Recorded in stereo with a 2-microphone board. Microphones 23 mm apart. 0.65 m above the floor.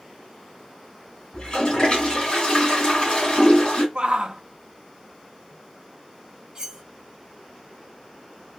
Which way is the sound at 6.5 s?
25° right (ahead or behind).